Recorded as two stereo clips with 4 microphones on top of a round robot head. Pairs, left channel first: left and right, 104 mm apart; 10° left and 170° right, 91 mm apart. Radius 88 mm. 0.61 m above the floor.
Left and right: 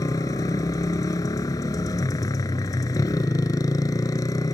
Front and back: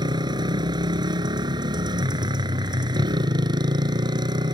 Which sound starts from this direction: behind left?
A motorcycle, at 0.0 s.